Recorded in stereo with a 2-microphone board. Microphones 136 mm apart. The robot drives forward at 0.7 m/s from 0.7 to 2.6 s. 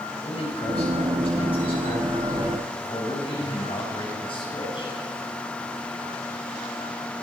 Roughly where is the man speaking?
Left.